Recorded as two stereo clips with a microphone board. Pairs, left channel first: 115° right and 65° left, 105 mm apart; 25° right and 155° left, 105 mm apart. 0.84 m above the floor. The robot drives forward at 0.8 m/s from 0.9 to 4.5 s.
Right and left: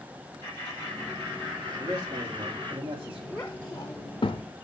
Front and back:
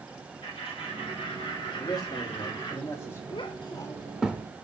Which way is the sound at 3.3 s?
30° right.